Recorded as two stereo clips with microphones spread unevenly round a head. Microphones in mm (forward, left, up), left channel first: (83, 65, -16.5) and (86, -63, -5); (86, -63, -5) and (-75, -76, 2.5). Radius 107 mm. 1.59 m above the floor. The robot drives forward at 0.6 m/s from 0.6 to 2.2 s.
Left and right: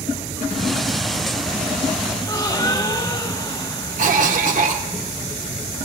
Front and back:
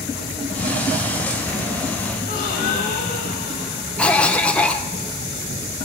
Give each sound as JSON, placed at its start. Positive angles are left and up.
{"t": 2.2, "sound": "a gasp", "azimuth_deg": 35, "distance_m": 1.1}
{"t": 4.0, "sound": "a cough", "azimuth_deg": -80, "distance_m": 1.2}